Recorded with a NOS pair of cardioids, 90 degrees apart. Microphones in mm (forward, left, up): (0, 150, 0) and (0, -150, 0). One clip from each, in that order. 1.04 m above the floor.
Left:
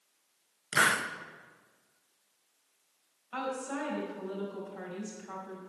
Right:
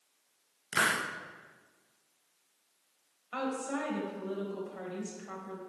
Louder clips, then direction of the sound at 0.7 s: Left 3 dB; 15° left.